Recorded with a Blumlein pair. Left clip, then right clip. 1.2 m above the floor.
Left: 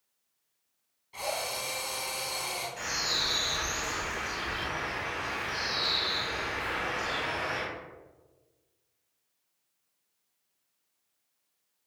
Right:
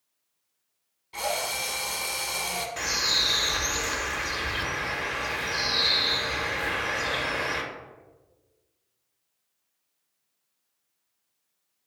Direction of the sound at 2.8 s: 55° right.